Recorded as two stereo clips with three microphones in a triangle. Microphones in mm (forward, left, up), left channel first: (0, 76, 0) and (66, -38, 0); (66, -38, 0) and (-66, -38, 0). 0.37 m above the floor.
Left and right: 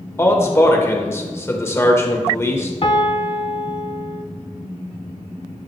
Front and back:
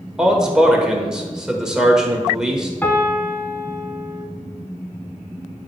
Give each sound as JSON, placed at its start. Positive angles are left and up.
{"t": 0.2, "sound": "a man speaking", "azimuth_deg": 105, "distance_m": 1.1}
{"t": 2.8, "sound": "a piano", "azimuth_deg": 75, "distance_m": 0.7}